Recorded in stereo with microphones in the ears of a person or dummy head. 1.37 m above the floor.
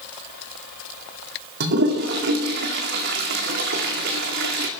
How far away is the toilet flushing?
About 2 m.